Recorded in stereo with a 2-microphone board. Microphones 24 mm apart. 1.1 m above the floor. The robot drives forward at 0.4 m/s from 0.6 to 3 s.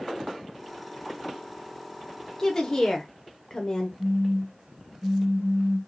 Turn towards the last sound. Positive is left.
turn(degrees=-50)  # may be behind; listen again after turning